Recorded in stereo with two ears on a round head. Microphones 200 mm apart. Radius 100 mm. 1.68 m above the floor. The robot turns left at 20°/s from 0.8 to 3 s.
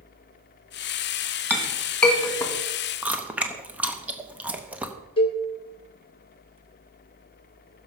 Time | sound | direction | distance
1.5 | a clink | 5° right (ahead or behind) | 1.9 m
3.0 | chewing | 5° right (ahead or behind) | 0.9 m
5.2 | a cowbell | 25° left (ahead or behind) | 1.2 m